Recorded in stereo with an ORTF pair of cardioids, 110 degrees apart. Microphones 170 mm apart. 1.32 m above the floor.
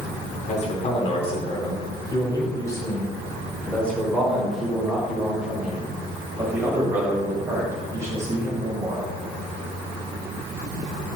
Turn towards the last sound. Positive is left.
turn(degrees=-20)